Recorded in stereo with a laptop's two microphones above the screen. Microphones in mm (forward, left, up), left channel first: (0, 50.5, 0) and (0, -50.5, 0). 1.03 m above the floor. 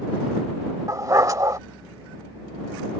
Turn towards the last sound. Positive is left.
turn(degrees=-35)  # may be behind; listen again after turning